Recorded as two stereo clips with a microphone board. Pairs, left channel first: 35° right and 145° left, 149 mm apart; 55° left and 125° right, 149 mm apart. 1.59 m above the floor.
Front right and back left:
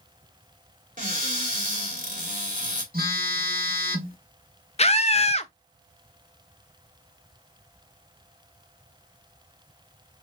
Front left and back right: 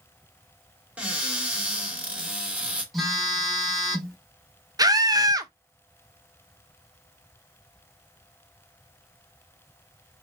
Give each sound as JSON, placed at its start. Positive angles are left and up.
{"t": 1.0, "sound": "a cupboard door", "azimuth_deg": 155, "distance_m": 2.0}
{"t": 2.9, "sound": "a phone buzzing", "azimuth_deg": 145, "distance_m": 1.2}
{"t": 4.8, "sound": "a scream", "azimuth_deg": -65, "distance_m": 0.6}